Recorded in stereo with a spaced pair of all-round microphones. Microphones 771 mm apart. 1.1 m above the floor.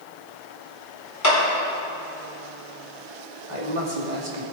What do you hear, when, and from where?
1.2 s a clap: 20° left (ahead or behind), 4 m
3.5 s a man speaking: 65° right (ahead or behind), 3 m